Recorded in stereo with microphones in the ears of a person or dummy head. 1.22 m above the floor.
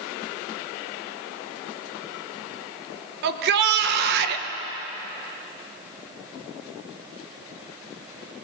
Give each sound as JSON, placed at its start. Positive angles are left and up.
{"t": 3.2, "sound": "a shout", "side_deg": -60, "distance_m": 1.0}